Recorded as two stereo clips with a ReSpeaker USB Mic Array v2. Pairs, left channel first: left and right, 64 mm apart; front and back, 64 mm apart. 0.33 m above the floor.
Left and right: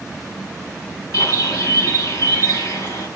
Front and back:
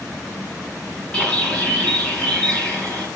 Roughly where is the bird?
Left.